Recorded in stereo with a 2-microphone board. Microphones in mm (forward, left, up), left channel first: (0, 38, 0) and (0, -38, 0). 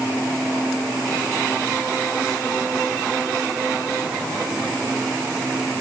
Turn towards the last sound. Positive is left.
No sound to turn to.